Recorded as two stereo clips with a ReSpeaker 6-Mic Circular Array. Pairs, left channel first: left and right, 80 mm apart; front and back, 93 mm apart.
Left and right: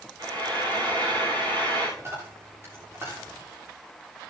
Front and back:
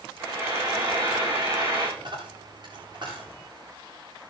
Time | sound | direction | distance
0.2 | frying | 125° right | 9 m
2.0 | a dropped coin | 145° right | 9 m